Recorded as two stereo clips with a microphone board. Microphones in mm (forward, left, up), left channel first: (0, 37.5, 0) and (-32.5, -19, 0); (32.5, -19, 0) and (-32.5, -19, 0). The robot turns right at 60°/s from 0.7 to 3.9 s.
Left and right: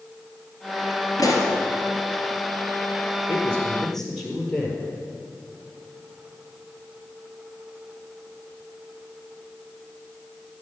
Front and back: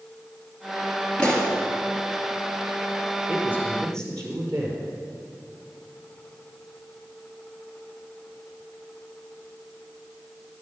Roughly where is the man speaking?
Left.